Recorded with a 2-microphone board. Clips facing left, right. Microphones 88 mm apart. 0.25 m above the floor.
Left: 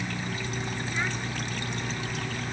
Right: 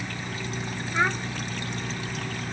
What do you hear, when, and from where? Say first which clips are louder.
0.9 s a child speaking: right 9 dB; 75° right (ahead or behind)